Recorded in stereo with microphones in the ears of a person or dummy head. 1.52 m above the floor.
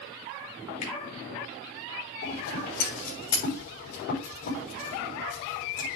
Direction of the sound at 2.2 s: 45° left (ahead or behind).